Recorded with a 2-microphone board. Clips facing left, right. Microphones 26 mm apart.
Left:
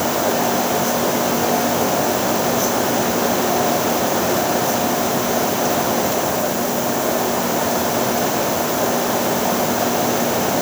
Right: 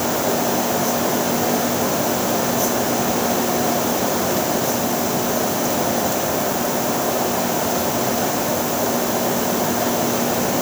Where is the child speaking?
I don't hear a child speaking.